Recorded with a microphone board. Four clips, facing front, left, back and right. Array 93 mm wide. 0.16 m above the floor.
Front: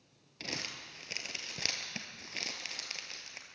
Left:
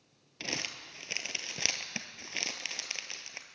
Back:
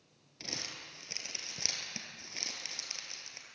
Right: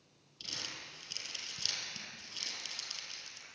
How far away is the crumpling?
About 1.6 m.